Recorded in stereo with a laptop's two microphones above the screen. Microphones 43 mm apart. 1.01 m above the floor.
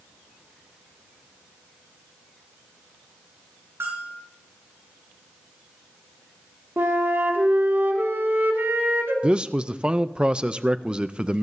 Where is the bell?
65° right (ahead or behind), 5.5 m.